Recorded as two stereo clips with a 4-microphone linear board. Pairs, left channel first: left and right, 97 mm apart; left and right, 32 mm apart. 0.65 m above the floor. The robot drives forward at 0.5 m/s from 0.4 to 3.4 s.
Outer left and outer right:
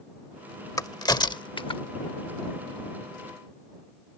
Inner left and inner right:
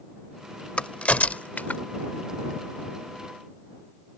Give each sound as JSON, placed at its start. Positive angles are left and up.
{"t": 0.8, "sound": "a crack", "side_deg": 40}